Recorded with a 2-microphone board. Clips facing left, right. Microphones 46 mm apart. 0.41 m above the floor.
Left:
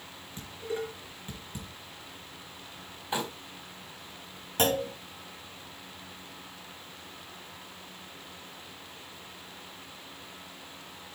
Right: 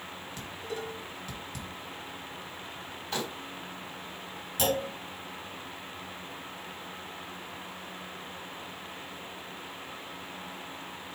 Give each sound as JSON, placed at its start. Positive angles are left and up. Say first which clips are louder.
{"t": 0.4, "sound": "dishes clattering", "louder": "left 4 dB", "side_deg": 20, "distance_m": 4.0}
{"t": 3.1, "sound": "crumpling", "louder": "left 2 dB", "side_deg": 15, "distance_m": 3.0}
{"t": 4.6, "sound": "a clunk", "louder": "left 2 dB", "side_deg": 40, "distance_m": 5.0}